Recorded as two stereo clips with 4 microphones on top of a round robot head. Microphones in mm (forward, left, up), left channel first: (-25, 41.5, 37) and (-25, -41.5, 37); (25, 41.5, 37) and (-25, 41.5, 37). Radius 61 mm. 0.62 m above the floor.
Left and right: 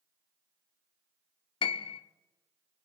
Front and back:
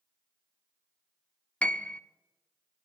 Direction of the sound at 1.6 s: 65° left.